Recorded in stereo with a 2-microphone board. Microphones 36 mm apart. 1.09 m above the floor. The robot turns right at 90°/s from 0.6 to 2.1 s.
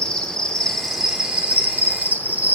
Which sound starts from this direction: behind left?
An insect, at 0.0 s.